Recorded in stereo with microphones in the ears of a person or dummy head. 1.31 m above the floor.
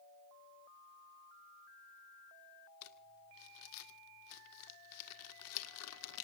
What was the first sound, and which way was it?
Crumpling, 75° left (ahead or behind).